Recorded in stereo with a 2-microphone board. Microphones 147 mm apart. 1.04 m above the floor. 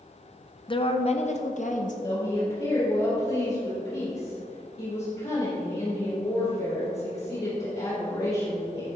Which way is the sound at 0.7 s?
35° left (ahead or behind).